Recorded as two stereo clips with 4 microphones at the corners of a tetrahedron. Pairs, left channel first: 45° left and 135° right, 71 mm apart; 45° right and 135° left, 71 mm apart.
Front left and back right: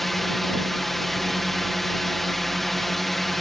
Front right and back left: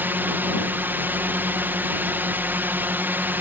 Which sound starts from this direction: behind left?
A drone, at 0.0 s.